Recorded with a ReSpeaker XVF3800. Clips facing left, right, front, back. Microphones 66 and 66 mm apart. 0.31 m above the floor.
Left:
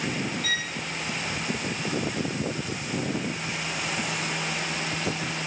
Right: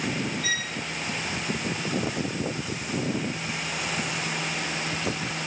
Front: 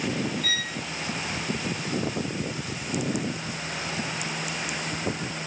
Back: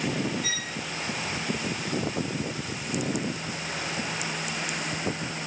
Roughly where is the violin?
Right.